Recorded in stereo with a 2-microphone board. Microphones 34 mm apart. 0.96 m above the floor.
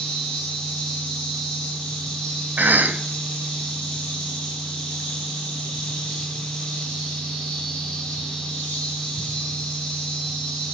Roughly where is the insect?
Centre.